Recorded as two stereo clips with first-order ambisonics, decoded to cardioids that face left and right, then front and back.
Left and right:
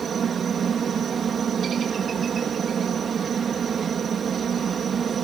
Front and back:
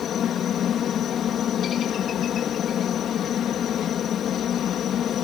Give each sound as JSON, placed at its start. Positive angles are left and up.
{"t": 0.0, "sound": "a helicopter", "azimuth_deg": -40}